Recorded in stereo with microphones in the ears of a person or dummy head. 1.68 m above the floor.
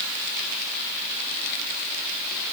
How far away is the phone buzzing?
No phone buzzing in this recording.